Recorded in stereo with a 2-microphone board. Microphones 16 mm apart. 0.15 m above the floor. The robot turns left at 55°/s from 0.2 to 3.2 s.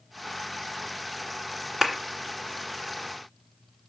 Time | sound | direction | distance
1.8 | a clap | 30° right (ahead or behind) | 1.7 m